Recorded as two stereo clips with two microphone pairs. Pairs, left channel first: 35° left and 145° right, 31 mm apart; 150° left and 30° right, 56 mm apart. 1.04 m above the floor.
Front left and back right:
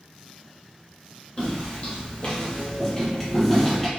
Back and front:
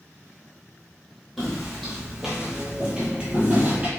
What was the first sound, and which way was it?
Footsteps, 60° left.